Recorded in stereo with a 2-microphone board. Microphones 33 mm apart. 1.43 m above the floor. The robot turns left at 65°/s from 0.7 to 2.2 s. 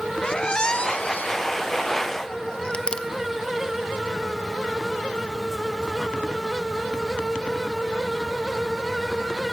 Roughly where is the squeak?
Left.